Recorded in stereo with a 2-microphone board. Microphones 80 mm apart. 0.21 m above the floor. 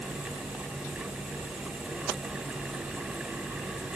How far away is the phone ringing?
No phone ringing in this recording.